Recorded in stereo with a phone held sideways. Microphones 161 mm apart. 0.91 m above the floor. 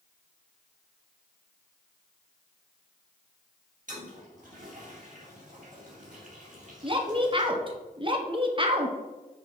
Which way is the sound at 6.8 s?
30° right (ahead or behind).